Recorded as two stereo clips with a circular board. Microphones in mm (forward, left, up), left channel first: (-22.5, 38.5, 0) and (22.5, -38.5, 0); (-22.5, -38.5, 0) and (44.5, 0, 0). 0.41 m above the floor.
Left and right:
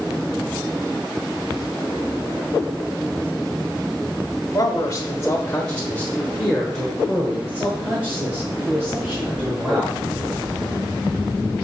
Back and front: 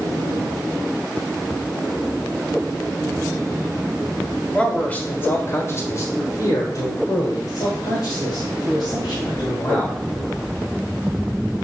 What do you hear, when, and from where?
4.5 s a man speaking: 135° left, 1.1 m; by 10.0 s 125° right, 2.5 m